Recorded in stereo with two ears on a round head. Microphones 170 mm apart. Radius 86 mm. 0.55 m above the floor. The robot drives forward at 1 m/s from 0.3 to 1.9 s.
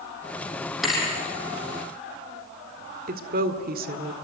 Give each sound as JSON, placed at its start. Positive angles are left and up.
{"t": 0.8, "sound": "a thud", "side_deg": 0, "distance_m": 5.5}
{"t": 3.1, "sound": "a woman speaking", "side_deg": -50, "distance_m": 2.0}